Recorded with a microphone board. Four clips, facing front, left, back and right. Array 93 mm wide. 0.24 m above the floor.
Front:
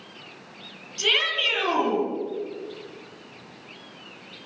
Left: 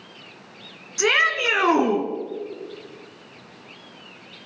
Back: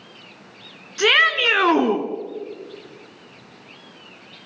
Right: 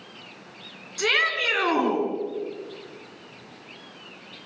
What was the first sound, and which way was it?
A shout, 160° left.